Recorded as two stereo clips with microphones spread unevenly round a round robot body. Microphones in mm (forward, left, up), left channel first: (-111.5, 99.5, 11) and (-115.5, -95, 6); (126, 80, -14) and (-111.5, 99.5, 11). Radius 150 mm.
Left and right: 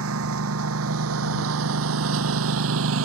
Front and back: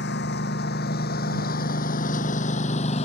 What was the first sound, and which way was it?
A lawn mower, 65° right.